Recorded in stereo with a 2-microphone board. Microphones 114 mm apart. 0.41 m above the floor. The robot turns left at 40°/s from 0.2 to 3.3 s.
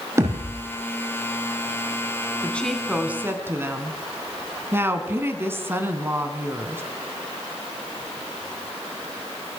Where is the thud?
25° right (ahead or behind), 8.5 m; by 0.6 s 40° right (ahead or behind), 8.5 m.